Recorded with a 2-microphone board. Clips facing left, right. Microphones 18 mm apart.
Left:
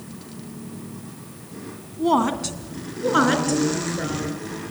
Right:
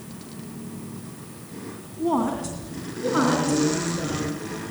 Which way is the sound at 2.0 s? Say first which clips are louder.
Left 4 dB; 65° left (ahead or behind).